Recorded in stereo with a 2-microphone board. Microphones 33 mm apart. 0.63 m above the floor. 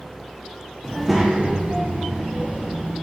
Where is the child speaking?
15° left (ahead or behind), 0.5 m; by 2.9 s 70° right (ahead or behind), 1.5 m.